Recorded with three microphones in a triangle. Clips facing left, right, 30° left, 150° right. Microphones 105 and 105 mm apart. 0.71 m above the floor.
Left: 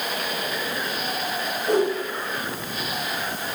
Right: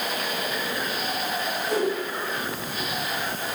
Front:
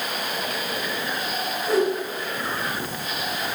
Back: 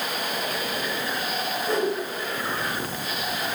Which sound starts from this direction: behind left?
A whoosh, at 1.7 s.